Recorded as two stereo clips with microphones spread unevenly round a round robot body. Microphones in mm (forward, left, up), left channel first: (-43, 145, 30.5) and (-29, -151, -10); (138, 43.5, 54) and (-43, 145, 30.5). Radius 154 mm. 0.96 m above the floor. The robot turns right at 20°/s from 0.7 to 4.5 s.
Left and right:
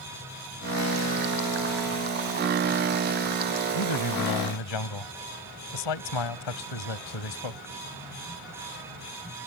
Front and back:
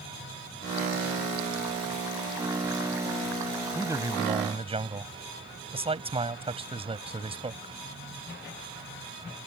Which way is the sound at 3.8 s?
70° left.